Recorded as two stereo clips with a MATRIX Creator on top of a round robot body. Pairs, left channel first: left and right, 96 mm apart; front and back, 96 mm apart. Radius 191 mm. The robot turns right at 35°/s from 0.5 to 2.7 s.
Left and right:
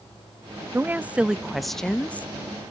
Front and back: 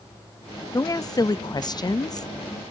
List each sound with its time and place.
0.7 s a woman speaking: 30° right, 0.6 m; by 2.3 s 25° left, 0.6 m